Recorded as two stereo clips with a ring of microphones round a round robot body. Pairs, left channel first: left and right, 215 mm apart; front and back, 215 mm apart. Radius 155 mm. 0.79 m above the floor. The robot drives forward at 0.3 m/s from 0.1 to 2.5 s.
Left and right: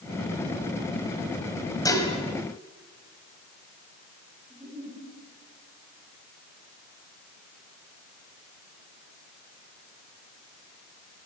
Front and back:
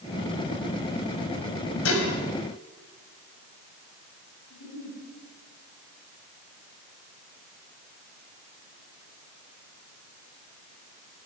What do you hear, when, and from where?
1.9 s dishes clattering: 15° left, 3.5 m
4.5 s a giggle: 5° right, 7.5 m